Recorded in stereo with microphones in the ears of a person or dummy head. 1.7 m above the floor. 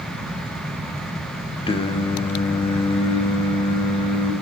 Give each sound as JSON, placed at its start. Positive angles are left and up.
{"t": 1.7, "sound": "singing", "side_deg": 25, "distance_m": 0.8}